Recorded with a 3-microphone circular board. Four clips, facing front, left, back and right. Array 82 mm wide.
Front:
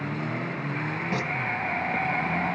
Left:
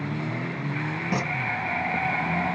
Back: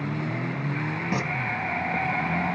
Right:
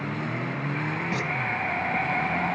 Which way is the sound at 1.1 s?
125° left.